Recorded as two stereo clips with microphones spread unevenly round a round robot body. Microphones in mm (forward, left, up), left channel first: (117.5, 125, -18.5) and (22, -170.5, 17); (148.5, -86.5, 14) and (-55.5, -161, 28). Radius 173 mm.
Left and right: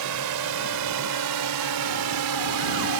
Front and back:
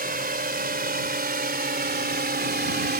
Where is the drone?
115° right; by 3.0 s 125° right.